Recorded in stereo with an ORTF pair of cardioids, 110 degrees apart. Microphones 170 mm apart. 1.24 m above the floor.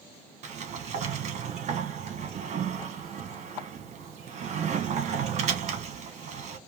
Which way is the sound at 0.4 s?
40° right.